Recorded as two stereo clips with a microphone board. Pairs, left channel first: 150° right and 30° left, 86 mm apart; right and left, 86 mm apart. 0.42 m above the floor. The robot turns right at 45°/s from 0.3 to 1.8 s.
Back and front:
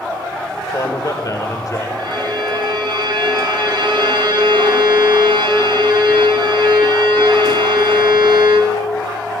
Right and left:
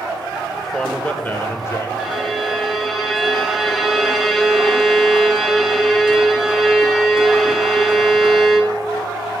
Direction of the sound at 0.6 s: Straight behind.